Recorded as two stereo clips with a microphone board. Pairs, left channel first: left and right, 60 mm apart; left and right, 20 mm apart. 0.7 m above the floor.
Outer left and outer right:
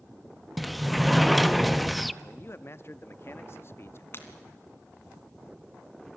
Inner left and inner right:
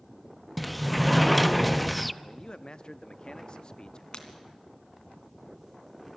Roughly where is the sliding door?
Centre.